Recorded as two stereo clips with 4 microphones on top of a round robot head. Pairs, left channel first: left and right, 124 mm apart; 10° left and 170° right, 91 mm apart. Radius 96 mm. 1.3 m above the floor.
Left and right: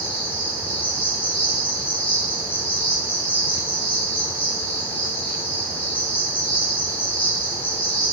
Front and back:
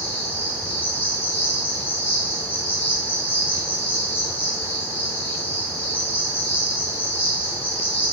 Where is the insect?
70° left, 1.3 m.